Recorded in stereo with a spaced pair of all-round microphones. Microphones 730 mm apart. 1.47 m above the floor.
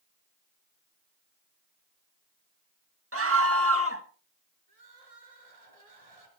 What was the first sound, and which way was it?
A scream, 20° right (ahead or behind).